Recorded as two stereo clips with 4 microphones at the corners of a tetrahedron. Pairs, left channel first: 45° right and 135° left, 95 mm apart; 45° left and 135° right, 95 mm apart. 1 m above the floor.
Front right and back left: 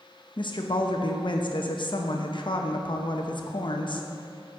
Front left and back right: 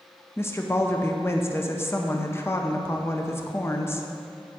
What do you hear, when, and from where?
0.4 s a woman speaking: 15° right, 0.7 m